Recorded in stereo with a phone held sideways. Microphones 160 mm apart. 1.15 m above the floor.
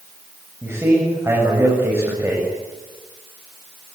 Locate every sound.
0.6 s a man speaking: 15° right (ahead or behind), 7 m